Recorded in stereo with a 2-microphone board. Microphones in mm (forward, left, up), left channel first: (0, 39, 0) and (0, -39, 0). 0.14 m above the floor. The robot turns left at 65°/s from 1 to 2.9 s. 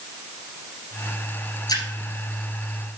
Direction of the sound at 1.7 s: 60° left (ahead or behind).